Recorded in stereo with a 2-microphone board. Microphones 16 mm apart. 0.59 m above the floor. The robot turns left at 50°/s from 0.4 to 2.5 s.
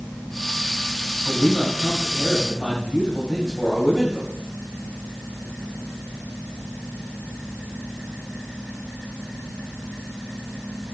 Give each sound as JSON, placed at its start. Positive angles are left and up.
{"t": 1.2, "sound": "a man speaking", "azimuth_deg": -170, "distance_m": 2.5}